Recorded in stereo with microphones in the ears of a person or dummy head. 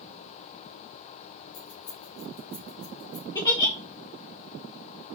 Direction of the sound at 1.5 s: 85° left.